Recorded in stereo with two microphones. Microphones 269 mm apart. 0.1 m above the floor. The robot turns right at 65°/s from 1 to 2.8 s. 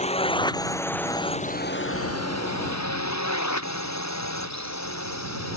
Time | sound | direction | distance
0.0 | a drone | 25° left (ahead or behind) | ?